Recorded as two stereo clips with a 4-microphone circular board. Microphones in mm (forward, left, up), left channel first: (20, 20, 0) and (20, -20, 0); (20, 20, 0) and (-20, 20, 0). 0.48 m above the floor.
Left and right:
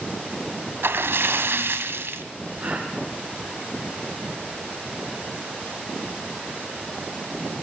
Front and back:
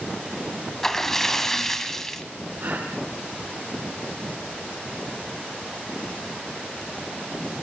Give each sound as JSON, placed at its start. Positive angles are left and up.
{"t": 0.8, "sound": "a splash", "azimuth_deg": -80, "distance_m": 1.7}
{"t": 2.6, "sound": "a gasp", "azimuth_deg": -140, "distance_m": 6.0}